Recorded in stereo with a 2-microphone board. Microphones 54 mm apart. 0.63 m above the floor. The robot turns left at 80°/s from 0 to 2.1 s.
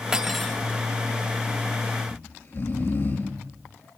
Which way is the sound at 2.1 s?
50° left (ahead or behind).